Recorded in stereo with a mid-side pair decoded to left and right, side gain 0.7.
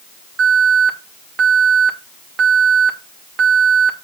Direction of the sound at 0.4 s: 40° right.